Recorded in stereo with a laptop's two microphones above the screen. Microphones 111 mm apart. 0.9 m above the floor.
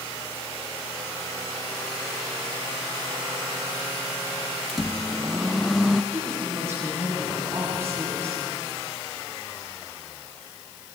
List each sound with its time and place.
4.7 s a microwave: centre (ahead or behind), 0.5 m
6.1 s a woman speaking: 25° right (ahead or behind), 6.5 m